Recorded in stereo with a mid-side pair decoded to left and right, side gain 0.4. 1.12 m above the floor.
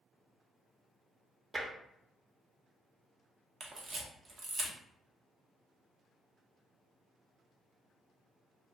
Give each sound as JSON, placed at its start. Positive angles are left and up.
{"t": 1.5, "sound": "tapping", "azimuth_deg": -35, "distance_m": 1.0}
{"t": 3.6, "sound": "a camera shutter", "azimuth_deg": -55, "distance_m": 0.9}